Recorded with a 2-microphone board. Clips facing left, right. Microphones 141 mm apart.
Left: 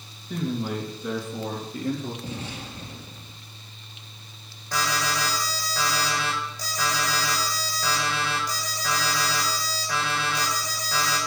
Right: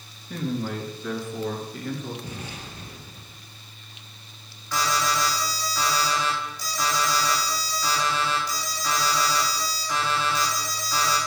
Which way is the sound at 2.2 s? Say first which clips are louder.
Left 2 dB; 30° left (ahead or behind).